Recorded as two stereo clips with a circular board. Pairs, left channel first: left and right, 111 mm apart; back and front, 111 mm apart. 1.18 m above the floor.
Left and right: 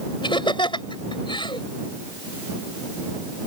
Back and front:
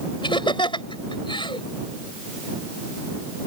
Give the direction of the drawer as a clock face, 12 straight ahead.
No drawer in this recording.